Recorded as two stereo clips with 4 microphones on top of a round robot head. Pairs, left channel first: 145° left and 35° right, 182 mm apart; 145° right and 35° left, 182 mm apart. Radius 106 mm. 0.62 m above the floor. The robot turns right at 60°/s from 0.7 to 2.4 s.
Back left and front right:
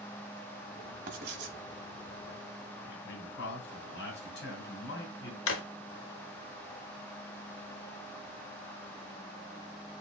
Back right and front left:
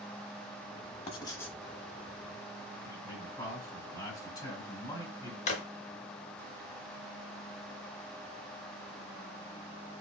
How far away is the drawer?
About 0.6 m.